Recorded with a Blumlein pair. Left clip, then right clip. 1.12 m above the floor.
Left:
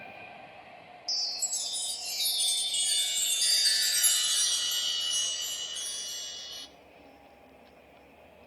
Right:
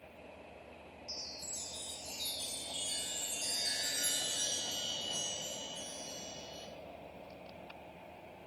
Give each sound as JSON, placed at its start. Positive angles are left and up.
{"t": 1.1, "sound": "a chime", "azimuth_deg": 35, "distance_m": 0.6}